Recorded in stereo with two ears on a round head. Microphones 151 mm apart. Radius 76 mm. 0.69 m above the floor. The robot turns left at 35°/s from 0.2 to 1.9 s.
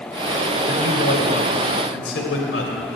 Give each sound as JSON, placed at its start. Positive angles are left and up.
{"t": 0.7, "sound": "a man speaking", "azimuth_deg": 125, "distance_m": 3.0}